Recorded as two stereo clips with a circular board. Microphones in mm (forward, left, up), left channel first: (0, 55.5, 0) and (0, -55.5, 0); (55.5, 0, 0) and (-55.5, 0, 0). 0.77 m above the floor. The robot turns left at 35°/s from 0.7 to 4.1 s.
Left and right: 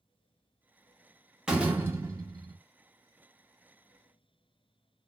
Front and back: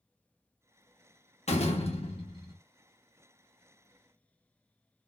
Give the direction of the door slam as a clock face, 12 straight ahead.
12 o'clock.